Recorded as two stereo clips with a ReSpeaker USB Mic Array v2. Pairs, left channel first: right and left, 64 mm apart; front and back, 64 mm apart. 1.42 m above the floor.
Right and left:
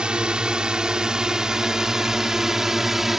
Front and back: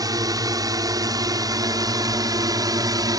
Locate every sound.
0.0 s a drone: 165° left; by 3.2 s 175° left